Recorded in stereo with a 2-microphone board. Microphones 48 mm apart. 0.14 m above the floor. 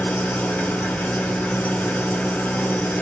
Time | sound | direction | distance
0.0 | an engine running | 35° left (ahead or behind) | 0.9 m